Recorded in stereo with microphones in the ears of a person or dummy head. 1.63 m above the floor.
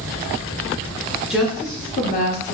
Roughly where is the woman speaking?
Centre.